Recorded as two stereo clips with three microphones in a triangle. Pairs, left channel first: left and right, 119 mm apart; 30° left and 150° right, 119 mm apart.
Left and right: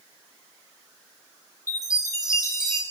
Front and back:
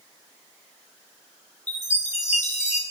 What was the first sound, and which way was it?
A chime, 30° left.